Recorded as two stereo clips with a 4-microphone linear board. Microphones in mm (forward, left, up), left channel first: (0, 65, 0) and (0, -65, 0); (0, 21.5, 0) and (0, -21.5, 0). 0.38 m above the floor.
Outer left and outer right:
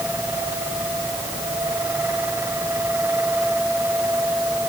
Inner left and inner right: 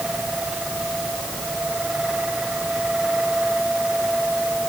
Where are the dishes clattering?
I don't hear dishes clattering.